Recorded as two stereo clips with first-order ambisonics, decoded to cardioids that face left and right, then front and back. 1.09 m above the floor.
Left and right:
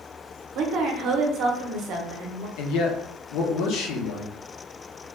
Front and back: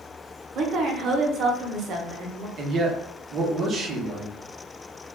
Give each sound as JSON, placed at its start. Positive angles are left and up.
{"t": 0.6, "sound": "a woman speaking", "azimuth_deg": -130, "distance_m": 0.6}
{"t": 2.6, "sound": "a man speaking", "azimuth_deg": 120, "distance_m": 0.6}